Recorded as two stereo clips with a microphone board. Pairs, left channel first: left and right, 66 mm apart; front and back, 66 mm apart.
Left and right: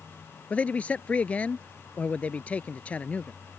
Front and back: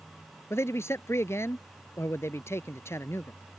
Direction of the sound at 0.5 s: 25° left.